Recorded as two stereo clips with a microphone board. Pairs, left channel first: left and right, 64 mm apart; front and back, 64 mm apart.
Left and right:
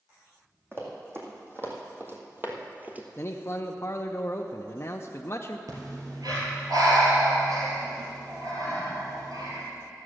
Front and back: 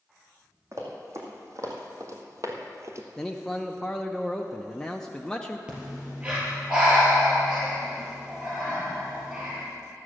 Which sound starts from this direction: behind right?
Running footsteps, at 0.7 s.